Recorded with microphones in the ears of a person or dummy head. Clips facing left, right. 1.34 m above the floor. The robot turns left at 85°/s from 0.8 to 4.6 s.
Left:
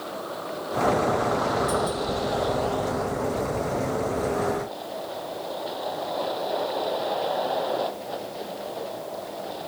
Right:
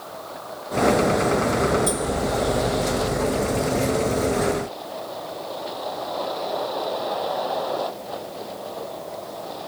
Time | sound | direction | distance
0.0 | a vehicle | 140° left | ?